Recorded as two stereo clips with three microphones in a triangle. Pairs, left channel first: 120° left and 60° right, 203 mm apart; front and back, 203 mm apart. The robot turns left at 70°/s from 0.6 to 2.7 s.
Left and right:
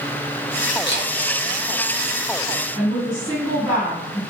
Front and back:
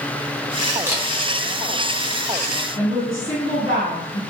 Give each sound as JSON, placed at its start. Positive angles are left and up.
{"t": 0.9, "sound": "a camera shutter", "azimuth_deg": 100, "distance_m": 0.8}
{"t": 2.8, "sound": "a woman speaking", "azimuth_deg": 5, "distance_m": 2.0}